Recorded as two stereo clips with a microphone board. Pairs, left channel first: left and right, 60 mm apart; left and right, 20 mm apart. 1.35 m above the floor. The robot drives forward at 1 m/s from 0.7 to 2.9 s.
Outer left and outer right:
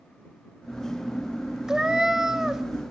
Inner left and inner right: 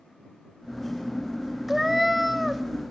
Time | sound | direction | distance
1.7 | a cat meowing | 10° right (ahead or behind) | 0.7 m